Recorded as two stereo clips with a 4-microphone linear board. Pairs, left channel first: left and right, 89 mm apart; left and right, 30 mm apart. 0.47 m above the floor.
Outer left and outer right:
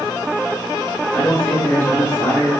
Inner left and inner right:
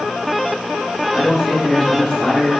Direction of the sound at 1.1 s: 5° left (ahead or behind).